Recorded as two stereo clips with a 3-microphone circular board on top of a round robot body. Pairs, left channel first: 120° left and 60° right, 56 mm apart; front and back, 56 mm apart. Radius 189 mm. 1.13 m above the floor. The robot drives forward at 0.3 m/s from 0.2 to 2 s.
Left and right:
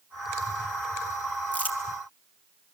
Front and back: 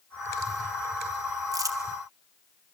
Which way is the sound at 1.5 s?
175° right.